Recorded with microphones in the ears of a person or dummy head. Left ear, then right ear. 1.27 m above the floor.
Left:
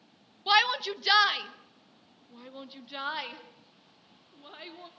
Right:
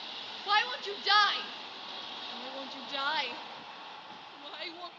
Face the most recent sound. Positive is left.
turn(degrees=-20)  # may be behind; listen again after turning